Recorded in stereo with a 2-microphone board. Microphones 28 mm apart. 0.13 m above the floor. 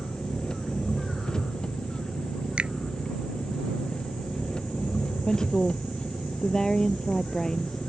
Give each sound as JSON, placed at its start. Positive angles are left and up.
{"t": 0.0, "sound": "an engine running", "side_deg": 30}
{"t": 2.6, "sound": "a finger snap", "side_deg": -45}
{"t": 5.3, "sound": "a woman speaking", "side_deg": 20}